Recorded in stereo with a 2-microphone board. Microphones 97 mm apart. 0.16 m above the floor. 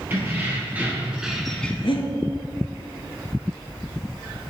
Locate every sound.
0.1 s keys jangling: 20° right (ahead or behind), 2 m; by 1.7 s 15° left (ahead or behind), 0.8 m
1.8 s breathing: 65° left (ahead or behind), 0.8 m